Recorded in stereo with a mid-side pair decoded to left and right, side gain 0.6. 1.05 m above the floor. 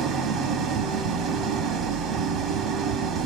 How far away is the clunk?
No clunk in this recording.